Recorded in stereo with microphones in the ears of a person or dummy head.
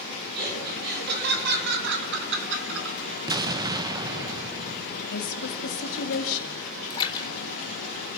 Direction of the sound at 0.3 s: 55° right (ahead or behind).